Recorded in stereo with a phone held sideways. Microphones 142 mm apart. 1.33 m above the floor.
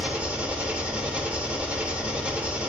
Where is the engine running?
10° right (ahead or behind), 1.6 m.